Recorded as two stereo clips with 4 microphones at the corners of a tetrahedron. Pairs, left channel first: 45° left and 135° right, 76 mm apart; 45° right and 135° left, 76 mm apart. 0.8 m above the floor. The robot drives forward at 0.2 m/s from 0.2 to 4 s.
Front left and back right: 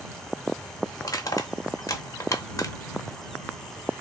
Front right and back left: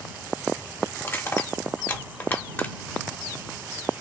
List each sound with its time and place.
1.0 s crushing: 10° left, 1.0 m; by 4.0 s 30° left, 0.5 m